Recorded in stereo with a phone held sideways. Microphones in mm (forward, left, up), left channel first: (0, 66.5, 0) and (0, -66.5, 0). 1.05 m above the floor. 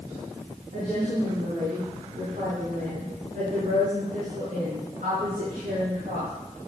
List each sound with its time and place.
0.7 s a woman speaking: 90° right, 8 m; by 6.3 s 85° right, 12.5 m